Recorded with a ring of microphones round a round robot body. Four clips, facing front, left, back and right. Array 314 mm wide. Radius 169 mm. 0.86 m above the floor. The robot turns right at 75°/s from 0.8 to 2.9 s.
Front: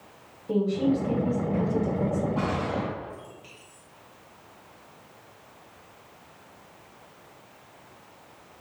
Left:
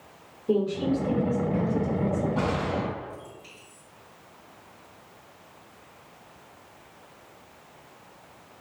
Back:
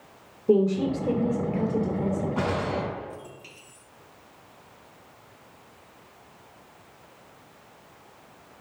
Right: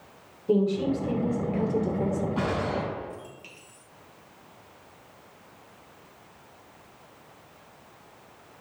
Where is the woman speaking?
165° left, 2.5 m; by 2.3 s 85° right, 2.5 m.